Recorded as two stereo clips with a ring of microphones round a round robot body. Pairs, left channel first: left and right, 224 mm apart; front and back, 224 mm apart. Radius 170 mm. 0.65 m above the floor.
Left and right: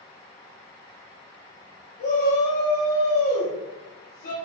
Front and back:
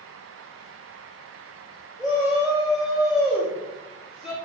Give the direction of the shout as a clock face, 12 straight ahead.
9 o'clock.